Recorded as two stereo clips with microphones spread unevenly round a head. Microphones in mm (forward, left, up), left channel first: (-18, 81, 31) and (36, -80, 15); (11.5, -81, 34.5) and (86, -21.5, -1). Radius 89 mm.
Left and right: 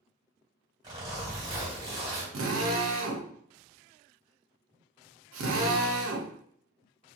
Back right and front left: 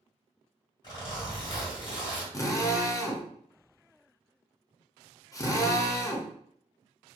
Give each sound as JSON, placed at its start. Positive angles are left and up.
{"t": 0.8, "sound": "a zipper", "azimuth_deg": -140, "distance_m": 1.6}
{"t": 2.3, "sound": "a drill", "azimuth_deg": -85, "distance_m": 0.7}